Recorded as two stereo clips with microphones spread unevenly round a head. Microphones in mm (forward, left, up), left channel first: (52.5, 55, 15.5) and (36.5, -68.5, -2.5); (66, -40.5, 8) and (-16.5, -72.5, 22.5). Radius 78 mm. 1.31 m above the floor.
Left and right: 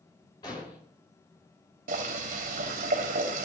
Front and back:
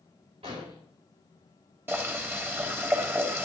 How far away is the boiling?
About 3.5 m.